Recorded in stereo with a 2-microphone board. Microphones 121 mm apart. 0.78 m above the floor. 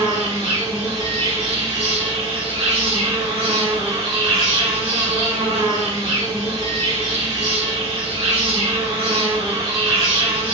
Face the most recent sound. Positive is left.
turn(degrees=-40)  # may be behind; listen again after turning